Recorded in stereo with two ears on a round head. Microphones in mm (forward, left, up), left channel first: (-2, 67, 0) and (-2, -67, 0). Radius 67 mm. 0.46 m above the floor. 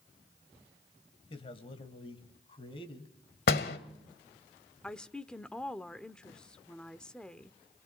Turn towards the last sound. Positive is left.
turn(degrees=5)  # may be behind; listen again after turning